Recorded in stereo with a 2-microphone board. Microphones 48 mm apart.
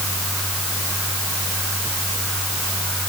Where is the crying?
No crying in this recording.